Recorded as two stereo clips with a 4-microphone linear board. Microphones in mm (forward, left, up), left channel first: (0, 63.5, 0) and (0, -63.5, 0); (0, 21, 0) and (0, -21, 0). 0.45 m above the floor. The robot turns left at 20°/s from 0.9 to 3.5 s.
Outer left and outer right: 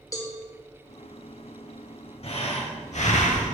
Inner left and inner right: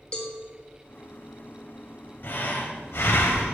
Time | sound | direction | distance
0.1 | a cowbell | 25° left (ahead or behind) | 1.0 m
2.2 | breathing | 50° left (ahead or behind) | 0.8 m